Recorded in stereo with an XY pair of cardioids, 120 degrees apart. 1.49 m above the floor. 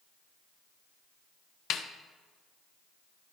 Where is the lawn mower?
No lawn mower in this recording.